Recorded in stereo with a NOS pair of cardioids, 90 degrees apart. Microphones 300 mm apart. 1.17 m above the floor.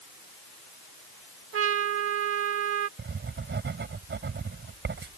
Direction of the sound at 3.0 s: 35° right.